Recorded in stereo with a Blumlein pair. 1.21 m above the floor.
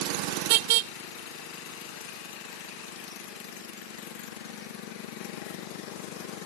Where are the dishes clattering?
No dishes clattering in this recording.